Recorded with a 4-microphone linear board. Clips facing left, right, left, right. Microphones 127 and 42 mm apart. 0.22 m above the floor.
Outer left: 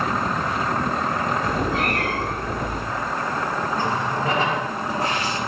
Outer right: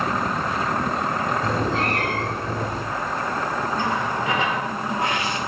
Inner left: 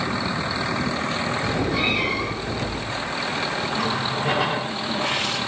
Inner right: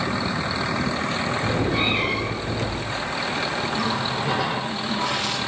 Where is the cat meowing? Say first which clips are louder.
Even, even; 25° right (ahead or behind), 5 m.